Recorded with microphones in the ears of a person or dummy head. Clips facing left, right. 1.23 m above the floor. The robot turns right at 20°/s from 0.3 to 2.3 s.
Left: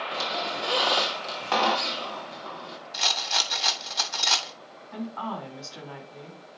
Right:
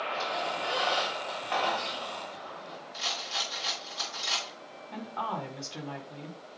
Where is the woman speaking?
40° right (ahead or behind), 4 m.